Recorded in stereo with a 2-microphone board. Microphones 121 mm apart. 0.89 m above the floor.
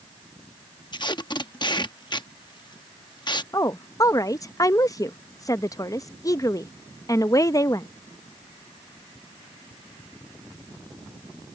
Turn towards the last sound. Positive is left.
turn(degrees=30)  # may be behind; listen again after turning